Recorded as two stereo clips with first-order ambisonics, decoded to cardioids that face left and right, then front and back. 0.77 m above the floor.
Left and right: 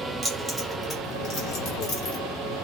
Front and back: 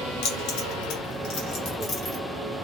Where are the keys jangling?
10° right, 1.4 m; by 2.2 s 70° left, 1.4 m.